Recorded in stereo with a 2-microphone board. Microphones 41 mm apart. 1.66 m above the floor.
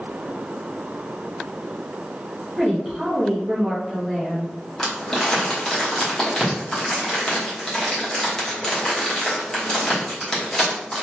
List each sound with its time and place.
2.6 s a woman speaking: 15° right (ahead or behind), 0.8 m
4.8 s crumpling: 15° left (ahead or behind), 1.1 m